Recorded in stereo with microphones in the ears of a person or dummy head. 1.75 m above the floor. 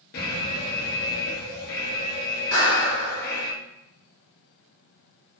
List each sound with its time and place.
0.1 s an alarm: 50° left (ahead or behind), 0.9 m
2.5 s a clap: 50° left (ahead or behind), 1.4 m